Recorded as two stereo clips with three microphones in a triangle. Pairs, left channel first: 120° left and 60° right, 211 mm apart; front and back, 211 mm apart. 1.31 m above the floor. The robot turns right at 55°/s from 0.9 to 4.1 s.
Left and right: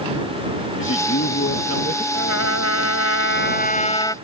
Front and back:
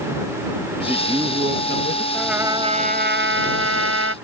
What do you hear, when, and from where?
0.8 s a man speaking: 95° left; by 2.0 s 160° left
2.1 s a trumpet: 85° left; by 4.2 s 165° right